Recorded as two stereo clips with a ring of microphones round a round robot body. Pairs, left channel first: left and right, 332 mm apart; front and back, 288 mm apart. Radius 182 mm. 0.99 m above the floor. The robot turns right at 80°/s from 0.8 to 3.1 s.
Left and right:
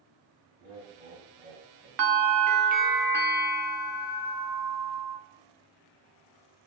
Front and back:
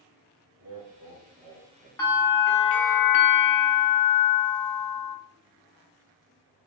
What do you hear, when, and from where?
0.6 s laughter: 135° right, 1.7 m; by 1.9 s 50° right, 1.7 m
2.0 s a bell: 80° right, 0.6 m; by 5.2 s 10° left, 0.6 m